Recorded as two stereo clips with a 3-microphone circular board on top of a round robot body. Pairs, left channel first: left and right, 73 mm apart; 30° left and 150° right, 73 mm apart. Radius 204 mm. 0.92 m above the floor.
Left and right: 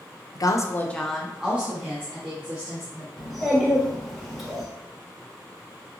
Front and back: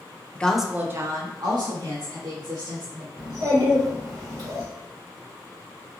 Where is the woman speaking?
100° left, 0.6 m; by 3.1 s 150° right, 1.7 m.